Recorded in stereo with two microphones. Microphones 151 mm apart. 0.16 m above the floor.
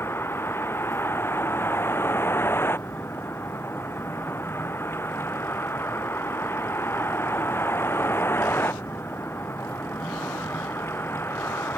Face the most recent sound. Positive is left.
turn(degrees=15)  # may be behind; listen again after turning